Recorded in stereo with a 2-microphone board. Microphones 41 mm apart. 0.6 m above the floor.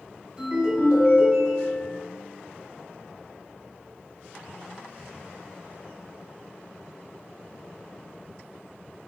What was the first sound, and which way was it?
A ringtone, 25° right (ahead or behind).